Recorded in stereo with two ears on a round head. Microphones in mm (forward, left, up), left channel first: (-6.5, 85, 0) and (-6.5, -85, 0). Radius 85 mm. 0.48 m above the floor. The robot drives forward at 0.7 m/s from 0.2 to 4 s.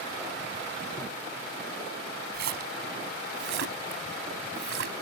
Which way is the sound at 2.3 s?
55° right (ahead or behind).